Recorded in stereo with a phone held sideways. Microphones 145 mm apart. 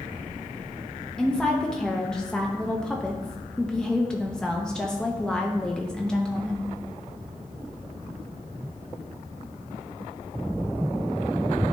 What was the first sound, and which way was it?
A woman speaking, 5° left (ahead or behind).